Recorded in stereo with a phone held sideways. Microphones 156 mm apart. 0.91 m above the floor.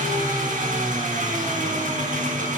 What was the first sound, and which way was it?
An engine running, 55° right (ahead or behind).